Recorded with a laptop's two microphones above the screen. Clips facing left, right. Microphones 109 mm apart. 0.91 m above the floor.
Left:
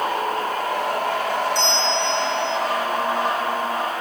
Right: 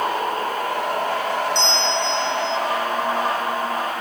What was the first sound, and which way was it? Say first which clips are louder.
A bell: even; 25° right (ahead or behind).